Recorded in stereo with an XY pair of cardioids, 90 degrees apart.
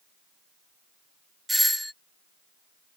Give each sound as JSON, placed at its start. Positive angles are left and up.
{"t": 1.5, "sound": "a doorbell", "azimuth_deg": 0}